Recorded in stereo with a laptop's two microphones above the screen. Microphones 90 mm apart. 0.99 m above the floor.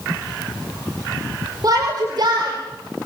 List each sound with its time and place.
1.6 s a shout: 45° right (ahead or behind), 5 m; by 3.1 s 65° right (ahead or behind), 5 m